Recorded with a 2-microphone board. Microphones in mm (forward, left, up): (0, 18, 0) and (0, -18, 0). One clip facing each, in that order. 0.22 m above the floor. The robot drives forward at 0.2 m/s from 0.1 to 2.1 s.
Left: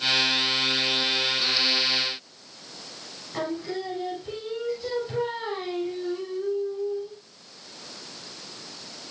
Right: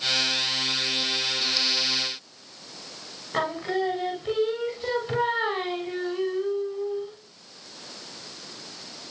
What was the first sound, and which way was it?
Singing, 40° right (ahead or behind).